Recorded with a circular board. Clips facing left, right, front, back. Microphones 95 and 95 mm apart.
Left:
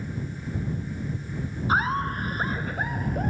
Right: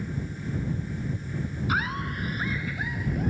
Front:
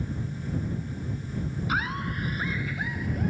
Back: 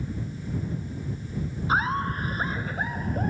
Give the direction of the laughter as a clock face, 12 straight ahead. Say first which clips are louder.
Left 6 dB, back 6 dB; 8 o'clock.